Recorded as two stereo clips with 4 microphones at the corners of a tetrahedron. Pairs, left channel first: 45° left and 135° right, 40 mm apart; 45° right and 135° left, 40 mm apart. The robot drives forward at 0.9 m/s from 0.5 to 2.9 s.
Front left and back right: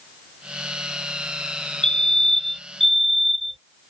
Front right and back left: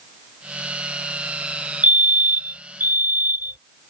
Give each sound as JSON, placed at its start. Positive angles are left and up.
{"t": 1.8, "sound": "a fire alarm", "azimuth_deg": 115}